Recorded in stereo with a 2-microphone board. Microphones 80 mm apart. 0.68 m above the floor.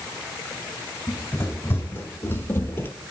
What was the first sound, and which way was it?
Running footsteps, 25° left (ahead or behind).